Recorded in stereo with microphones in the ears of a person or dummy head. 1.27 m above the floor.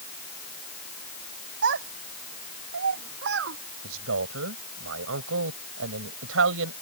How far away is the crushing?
I don't hear crushing.